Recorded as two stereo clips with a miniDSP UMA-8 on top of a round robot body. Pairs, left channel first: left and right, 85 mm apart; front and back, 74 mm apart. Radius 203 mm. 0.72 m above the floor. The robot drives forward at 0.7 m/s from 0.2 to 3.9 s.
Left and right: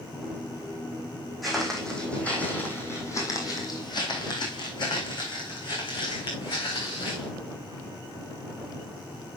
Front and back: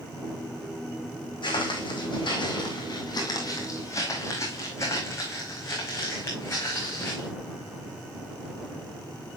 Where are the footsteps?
Straight ahead, 2.5 m; by 7.3 s 60° left, 4 m.